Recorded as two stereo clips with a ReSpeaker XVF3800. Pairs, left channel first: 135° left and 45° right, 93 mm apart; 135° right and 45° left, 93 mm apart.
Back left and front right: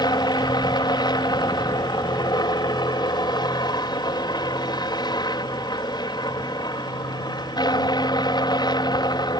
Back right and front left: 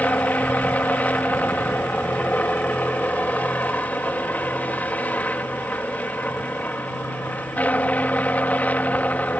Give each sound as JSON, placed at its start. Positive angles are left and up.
{"t": 0.0, "sound": "a helicopter", "azimuth_deg": 155}